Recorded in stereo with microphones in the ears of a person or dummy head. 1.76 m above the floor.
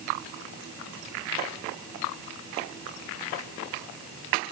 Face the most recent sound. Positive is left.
No sound to turn to.